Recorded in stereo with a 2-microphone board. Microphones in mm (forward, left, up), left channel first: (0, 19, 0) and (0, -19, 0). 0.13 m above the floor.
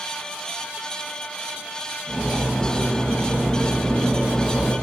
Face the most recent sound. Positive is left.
turn(degrees=-5)  # may be behind; listen again after turning